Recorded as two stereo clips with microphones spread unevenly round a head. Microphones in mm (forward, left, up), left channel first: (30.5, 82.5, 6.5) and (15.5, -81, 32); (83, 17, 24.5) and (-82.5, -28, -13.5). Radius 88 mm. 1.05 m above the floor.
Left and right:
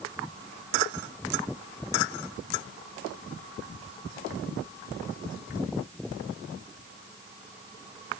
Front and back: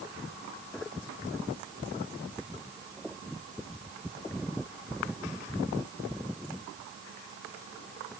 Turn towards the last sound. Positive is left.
No sound to turn to.